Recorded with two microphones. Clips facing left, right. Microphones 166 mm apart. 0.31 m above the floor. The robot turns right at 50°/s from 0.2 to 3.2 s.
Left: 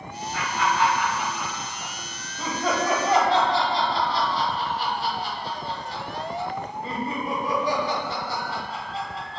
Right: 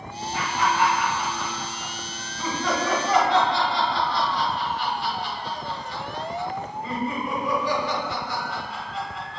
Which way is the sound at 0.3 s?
25° right (ahead or behind).